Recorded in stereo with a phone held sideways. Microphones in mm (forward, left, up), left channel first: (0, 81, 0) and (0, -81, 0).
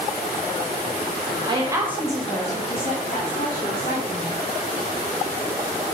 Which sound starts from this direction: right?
A woman speaking, at 1.5 s.